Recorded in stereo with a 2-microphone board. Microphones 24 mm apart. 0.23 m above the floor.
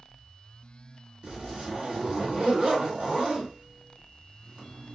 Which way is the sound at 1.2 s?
45° right (ahead or behind).